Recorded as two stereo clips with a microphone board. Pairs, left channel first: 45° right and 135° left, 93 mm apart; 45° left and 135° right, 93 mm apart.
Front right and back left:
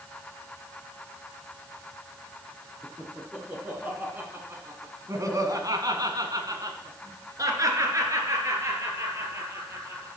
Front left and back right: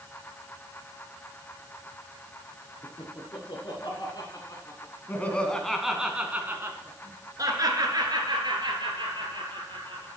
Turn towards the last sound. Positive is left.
turn(degrees=-165)